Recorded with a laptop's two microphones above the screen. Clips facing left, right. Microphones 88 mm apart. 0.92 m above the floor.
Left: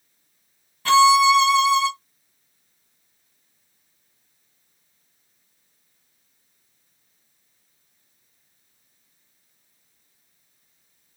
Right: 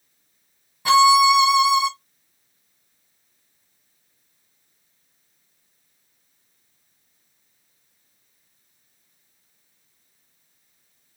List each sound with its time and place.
0.8 s a violin: 15° right (ahead or behind), 0.7 m